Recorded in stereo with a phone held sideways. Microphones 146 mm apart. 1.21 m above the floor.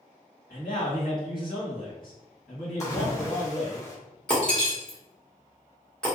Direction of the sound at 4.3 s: 5° left (ahead or behind).